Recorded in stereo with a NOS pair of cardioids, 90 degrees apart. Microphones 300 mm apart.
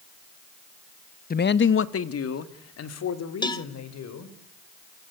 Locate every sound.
1.3 s a man speaking: 30° left, 1.3 m; by 4.3 s 60° left, 5.5 m
3.4 s a cowbell: 15° left, 1.9 m